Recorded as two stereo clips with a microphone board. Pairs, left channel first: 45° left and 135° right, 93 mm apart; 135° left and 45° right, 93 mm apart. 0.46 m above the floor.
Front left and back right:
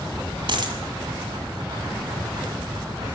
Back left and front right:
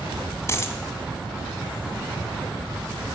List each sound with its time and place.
0.5 s a dropped coin: 165° right, 1.8 m